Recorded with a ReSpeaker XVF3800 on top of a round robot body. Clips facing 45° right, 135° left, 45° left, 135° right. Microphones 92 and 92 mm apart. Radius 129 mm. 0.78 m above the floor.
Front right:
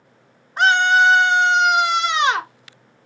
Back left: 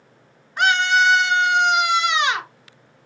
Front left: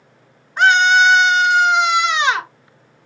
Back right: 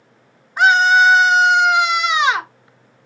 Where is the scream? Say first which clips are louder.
Front right 3 dB, even; 60° right, 1.0 m.